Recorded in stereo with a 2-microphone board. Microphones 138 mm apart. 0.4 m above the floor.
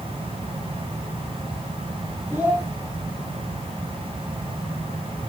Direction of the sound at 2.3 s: 10° right (ahead or behind).